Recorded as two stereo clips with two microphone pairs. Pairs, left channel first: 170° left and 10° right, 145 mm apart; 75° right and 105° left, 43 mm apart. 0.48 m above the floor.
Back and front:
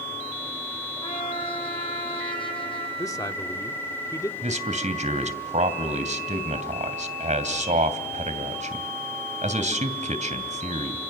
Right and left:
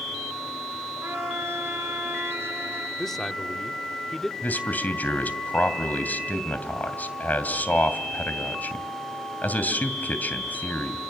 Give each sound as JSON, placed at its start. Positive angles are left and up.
{"t": 1.0, "sound": "a trumpet", "azimuth_deg": 120, "distance_m": 3.5}
{"t": 3.0, "sound": "a man speaking", "azimuth_deg": -155, "distance_m": 1.2}
{"t": 4.4, "sound": "a man speaking", "azimuth_deg": -40, "distance_m": 2.5}